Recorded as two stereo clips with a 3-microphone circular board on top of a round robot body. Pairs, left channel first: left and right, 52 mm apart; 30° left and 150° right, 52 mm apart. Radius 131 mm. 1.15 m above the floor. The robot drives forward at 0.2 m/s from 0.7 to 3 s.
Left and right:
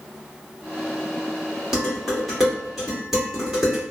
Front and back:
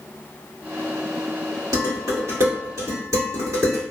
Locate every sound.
1.7 s dishes clattering: 175° right, 1.5 m